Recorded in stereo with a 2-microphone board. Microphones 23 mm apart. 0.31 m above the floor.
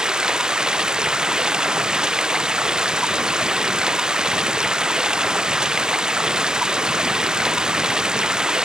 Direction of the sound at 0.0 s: 35° right (ahead or behind).